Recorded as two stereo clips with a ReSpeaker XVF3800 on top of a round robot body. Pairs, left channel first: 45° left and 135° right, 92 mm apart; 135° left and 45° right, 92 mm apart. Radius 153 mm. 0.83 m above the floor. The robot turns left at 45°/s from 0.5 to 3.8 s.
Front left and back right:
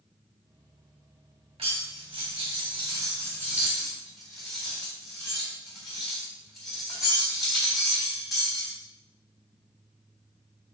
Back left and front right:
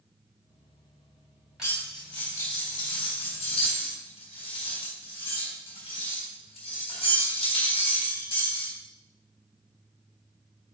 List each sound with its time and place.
1.6 s cutlery clinking: 130° right, 3.5 m; by 8.7 s 130° left, 3.5 m